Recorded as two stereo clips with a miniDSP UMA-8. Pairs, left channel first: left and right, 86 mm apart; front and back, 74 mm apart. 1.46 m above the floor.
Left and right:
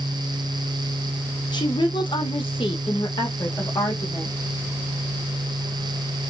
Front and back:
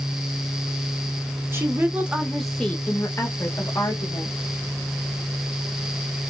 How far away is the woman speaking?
About 0.9 m.